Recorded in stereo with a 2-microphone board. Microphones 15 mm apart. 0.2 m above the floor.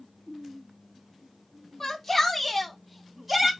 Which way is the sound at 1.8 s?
15° left (ahead or behind).